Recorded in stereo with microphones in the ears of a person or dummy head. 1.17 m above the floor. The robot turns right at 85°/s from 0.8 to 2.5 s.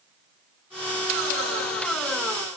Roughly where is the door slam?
No door slam in this recording.